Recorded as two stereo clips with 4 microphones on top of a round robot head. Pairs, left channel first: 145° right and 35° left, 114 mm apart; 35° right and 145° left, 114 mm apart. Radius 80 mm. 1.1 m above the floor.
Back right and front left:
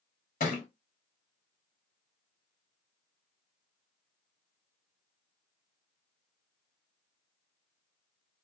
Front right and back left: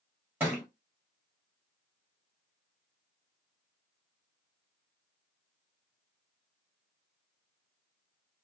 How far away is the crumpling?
I don't hear crumpling.